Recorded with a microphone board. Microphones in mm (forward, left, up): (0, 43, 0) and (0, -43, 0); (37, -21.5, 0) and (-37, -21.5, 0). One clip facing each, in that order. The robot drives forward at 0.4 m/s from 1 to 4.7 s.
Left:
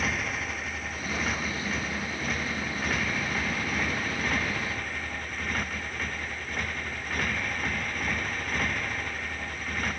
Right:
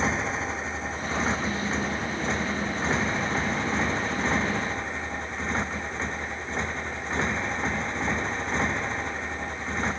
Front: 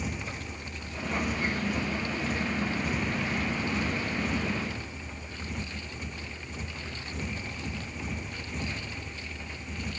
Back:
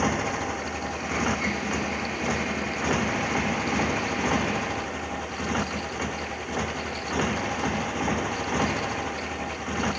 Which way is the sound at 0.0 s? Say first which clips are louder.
Right 4 dB, back 11 dB; 155° right.